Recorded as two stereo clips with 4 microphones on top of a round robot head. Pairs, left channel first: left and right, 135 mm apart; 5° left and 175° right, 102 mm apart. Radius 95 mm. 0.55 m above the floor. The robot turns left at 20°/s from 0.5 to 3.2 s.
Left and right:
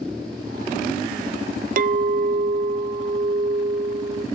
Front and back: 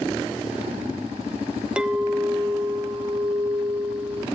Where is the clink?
95° right, 0.7 m; by 4.2 s 120° right, 0.7 m.